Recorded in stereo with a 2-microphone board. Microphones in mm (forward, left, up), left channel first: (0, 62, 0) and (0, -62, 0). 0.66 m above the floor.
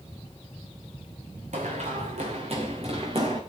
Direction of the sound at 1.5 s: 65° right (ahead or behind).